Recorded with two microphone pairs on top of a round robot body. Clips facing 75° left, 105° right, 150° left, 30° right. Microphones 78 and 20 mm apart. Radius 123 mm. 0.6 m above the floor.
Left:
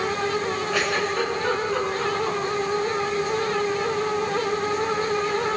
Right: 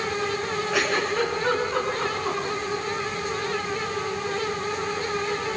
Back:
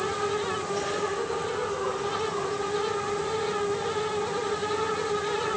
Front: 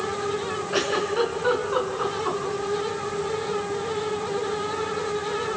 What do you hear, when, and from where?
0.7 s a giggle: 20° right, 5 m